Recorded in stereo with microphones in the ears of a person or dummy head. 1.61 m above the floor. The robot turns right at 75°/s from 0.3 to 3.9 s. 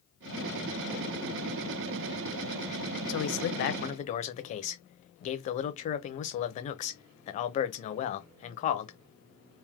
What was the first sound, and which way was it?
A man speaking, 75° left.